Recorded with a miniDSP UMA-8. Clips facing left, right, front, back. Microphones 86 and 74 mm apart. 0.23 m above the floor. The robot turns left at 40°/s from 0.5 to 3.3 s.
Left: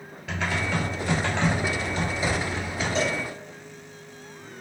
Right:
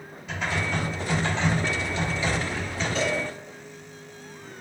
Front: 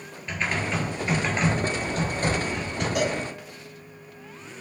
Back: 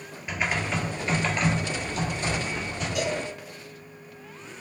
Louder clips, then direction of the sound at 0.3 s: Left 1 dB, even; 100° left.